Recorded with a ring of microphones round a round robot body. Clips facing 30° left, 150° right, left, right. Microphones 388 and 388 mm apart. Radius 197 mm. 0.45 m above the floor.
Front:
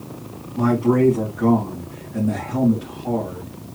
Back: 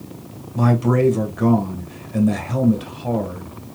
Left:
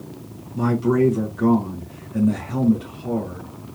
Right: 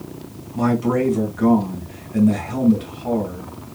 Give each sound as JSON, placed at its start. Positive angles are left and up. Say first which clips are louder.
{"t": 0.6, "sound": "a man speaking", "louder": "front 1 dB, even", "azimuth_deg": -170, "distance_m": 1.9}